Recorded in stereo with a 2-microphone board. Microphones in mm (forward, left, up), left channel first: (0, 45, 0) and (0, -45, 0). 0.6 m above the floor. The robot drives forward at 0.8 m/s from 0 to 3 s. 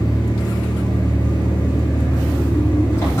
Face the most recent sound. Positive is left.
turn(degrees=30)  # may be behind; listen again after turning